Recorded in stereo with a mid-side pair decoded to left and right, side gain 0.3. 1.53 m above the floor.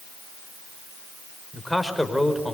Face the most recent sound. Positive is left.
turn(degrees=5)